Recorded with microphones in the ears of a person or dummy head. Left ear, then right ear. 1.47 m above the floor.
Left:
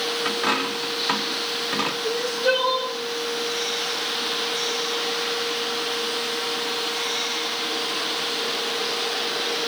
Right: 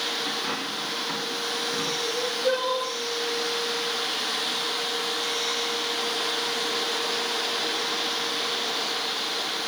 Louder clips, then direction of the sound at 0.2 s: Left 5 dB; 50° left (ahead or behind).